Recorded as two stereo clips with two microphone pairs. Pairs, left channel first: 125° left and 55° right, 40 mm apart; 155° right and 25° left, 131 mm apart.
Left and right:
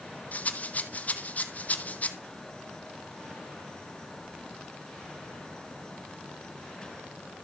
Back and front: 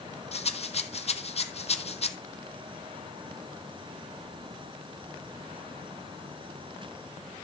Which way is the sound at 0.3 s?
170° left.